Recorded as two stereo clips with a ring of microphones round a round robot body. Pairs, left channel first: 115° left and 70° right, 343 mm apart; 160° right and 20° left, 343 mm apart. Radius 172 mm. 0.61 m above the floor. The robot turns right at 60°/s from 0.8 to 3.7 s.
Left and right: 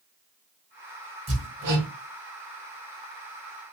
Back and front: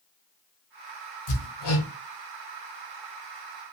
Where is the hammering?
140° right, 1.7 m; by 1.9 s 105° right, 1.7 m.